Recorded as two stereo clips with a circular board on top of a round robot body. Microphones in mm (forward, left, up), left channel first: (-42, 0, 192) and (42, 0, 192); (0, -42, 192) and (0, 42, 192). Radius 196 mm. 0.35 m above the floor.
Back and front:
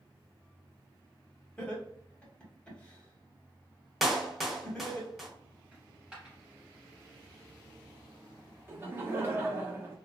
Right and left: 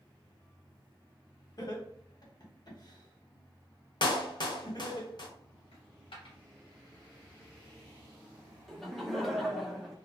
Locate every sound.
1.6 s laughter: 105° right, 1.5 m
4.0 s a clap: 85° right, 0.9 m
5.7 s a dropped coin: 80° right, 0.7 m
8.7 s laughter: 5° right, 1.0 m